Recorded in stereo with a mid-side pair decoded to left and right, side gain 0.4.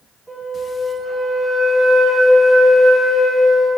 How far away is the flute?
About 3 m.